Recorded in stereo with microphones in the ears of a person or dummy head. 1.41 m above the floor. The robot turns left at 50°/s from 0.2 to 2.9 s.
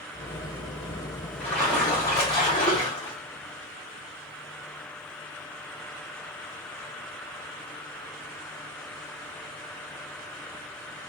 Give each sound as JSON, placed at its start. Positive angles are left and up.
{"t": 1.4, "sound": "a splash", "side_deg": 5, "distance_m": 0.9}